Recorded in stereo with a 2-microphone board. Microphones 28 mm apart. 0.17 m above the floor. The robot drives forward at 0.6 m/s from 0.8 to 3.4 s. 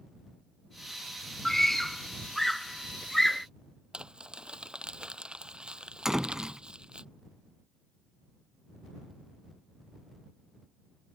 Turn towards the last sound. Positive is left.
turn(degrees=-15)  # may be behind; listen again after turning